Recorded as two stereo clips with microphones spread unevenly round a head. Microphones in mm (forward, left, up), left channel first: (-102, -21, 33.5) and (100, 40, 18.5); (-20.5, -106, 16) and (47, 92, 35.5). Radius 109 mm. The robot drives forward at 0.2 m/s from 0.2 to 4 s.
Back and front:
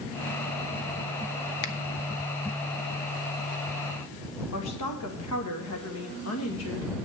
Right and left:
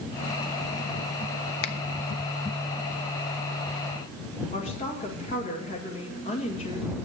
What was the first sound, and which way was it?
A finger snap, 130° right.